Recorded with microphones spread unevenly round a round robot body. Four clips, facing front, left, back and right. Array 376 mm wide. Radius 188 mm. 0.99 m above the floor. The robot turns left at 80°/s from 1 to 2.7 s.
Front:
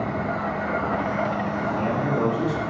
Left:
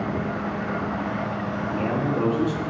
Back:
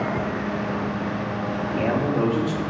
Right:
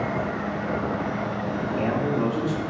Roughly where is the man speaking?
Right.